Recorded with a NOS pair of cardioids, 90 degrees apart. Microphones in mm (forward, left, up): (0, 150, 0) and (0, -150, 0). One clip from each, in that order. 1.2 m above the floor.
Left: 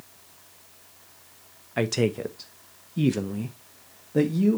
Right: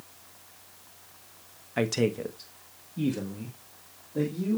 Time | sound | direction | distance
1.8 | a man speaking | 5° left | 1.0 m